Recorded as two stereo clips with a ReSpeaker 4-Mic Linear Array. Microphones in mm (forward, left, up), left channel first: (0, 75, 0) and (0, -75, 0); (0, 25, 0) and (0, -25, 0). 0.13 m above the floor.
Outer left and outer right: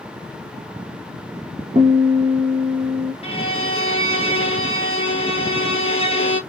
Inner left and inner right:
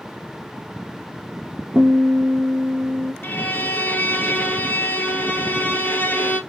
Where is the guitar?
50° right (ahead or behind), 1.0 m.